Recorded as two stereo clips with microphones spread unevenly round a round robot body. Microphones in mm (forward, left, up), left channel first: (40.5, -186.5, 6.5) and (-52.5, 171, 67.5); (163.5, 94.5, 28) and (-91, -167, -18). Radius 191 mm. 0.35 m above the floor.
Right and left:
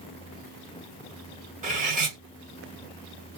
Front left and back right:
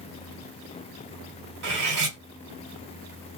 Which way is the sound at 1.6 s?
175° left.